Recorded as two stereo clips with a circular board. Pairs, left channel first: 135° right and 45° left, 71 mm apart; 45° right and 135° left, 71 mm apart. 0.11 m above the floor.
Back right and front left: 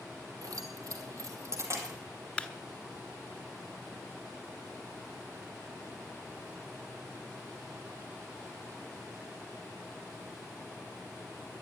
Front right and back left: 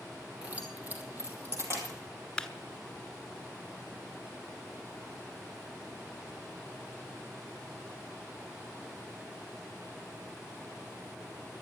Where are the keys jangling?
60° left, 2.5 m; by 2.0 s 90° left, 3.5 m.